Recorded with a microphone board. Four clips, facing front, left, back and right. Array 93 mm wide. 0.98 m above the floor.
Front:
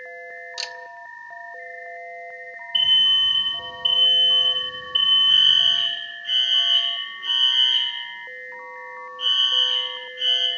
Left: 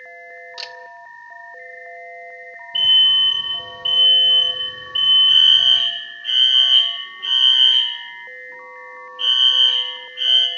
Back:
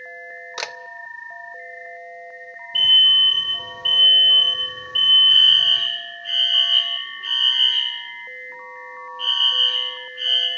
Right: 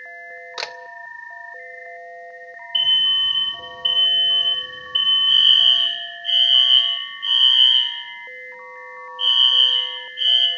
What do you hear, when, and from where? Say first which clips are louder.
0.6 s a camera shutter: right 8 dB, back 9 dB; 140° right, 0.5 m
2.7 s an alarm: left 4 dB, back 4 dB; 130° left, 4 m
5.3 s a fire alarm: left 1 dB, back 2 dB; 105° left, 4 m